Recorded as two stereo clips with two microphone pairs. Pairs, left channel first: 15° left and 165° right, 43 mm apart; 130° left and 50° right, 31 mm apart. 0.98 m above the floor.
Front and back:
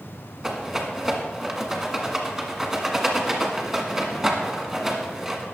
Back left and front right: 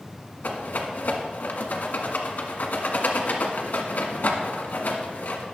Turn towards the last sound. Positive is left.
turn(degrees=110)